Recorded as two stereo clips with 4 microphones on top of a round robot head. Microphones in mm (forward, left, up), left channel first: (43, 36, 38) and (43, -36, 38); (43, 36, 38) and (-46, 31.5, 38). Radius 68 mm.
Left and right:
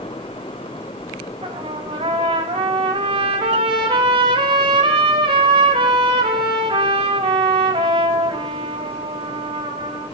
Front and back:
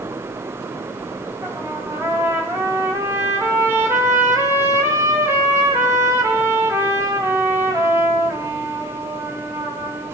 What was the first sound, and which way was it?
A trumpet, 105° right.